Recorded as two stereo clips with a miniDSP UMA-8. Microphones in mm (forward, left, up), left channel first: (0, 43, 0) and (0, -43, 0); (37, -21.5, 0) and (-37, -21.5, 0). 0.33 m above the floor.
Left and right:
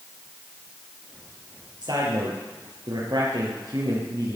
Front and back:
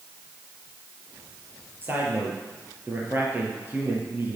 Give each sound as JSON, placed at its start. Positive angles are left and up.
{"t": 1.8, "sound": "a man speaking", "azimuth_deg": -120, "distance_m": 5.5}